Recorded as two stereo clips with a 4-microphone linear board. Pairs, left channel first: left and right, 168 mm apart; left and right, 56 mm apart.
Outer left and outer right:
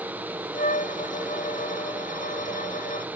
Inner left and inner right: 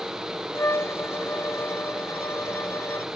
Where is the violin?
55° left (ahead or behind).